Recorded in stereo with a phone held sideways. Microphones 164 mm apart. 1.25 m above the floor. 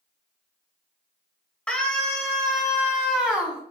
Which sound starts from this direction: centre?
A scream, at 1.7 s.